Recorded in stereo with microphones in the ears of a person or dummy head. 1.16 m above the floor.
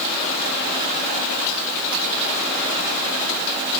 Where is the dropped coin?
I don't hear a dropped coin.